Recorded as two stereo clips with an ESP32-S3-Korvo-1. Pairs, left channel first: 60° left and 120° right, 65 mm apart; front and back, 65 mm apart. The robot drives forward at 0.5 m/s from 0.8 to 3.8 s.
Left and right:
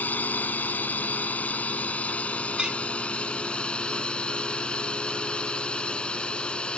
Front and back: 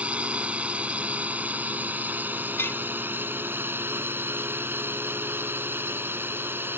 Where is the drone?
115° left; by 6.8 s 130° left.